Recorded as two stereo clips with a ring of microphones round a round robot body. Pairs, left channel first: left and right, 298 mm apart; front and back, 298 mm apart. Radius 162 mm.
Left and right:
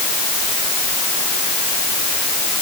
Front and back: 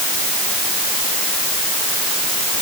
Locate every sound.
Only background noise.